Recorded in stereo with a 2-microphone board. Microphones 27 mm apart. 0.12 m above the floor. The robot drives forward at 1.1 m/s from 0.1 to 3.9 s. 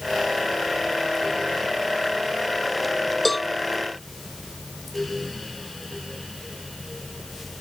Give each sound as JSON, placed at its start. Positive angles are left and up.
{"t": 3.2, "sound": "a cowbell", "side_deg": 0}